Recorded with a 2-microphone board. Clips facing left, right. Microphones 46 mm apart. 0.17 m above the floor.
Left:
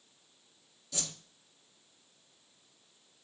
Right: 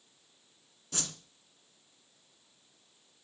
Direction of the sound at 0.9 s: 50° right (ahead or behind).